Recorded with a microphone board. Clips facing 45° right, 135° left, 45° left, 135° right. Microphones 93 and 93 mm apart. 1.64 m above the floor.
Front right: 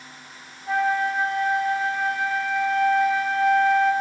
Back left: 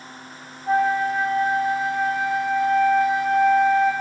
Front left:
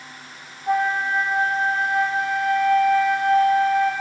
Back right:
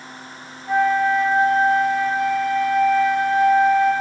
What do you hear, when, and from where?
0.7 s a flute: 80° left, 1.2 m